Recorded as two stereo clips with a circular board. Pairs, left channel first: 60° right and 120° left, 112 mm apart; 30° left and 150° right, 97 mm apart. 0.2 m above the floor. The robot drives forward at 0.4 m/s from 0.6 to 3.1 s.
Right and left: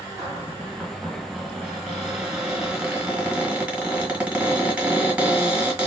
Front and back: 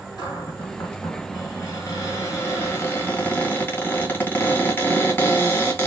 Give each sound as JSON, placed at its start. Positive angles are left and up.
{"t": 0.2, "sound": "a cupboard door", "azimuth_deg": 20, "distance_m": 2.0}